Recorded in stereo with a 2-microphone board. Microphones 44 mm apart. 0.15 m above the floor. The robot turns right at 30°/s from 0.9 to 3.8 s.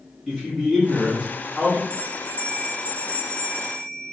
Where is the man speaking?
Centre (ahead or behind), 1.5 m; by 1.8 s 15° right (ahead or behind), 1.5 m.